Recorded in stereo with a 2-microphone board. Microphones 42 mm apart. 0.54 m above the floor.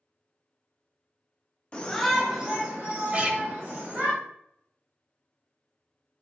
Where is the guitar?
35° right (ahead or behind), 0.6 m.